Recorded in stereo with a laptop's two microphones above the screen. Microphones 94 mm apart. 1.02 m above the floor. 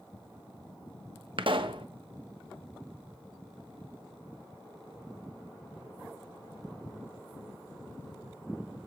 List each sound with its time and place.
1.4 s a pop: 65° right (ahead or behind), 1.0 m